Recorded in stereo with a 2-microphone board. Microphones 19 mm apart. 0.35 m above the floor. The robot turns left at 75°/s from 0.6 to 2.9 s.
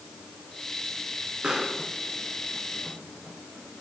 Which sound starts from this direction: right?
A pop, at 1.4 s.